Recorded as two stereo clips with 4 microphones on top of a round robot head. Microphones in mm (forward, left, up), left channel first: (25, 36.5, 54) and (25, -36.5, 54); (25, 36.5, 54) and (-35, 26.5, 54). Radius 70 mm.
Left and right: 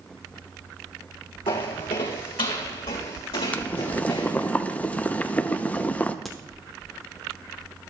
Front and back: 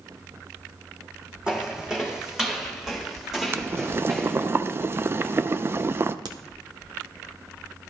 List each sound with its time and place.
1.5 s footsteps: 115° left, 2.5 m; by 4.5 s 105° left, 4.5 m
3.5 s boiling: 150° left, 0.6 m
6.2 s a crack: 175° left, 1.0 m